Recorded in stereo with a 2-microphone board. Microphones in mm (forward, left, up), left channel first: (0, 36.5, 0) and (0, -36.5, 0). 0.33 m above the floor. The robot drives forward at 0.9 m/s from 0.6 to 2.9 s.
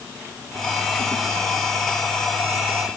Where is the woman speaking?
I don't hear a woman speaking.